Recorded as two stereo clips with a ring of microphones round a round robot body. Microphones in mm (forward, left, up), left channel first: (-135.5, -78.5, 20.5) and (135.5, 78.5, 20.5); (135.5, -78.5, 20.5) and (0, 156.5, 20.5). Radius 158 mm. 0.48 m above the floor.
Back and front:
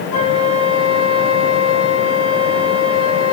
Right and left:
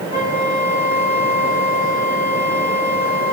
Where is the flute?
125° right, 2 m.